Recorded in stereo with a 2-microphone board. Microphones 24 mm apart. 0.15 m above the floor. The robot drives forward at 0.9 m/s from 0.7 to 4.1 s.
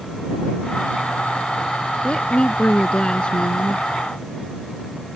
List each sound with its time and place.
2.0 s a woman speaking: 45° left (ahead or behind); by 3.9 s 40° left (ahead or behind)